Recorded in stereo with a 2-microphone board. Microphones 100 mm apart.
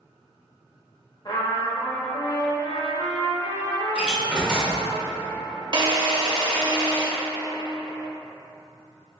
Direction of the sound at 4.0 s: 10° right (ahead or behind).